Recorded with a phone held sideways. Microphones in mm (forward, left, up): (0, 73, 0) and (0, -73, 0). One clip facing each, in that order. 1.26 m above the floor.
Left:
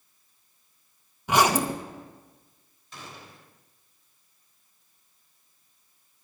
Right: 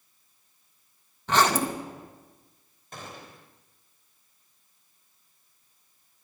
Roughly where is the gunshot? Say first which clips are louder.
Right 2 dB; right.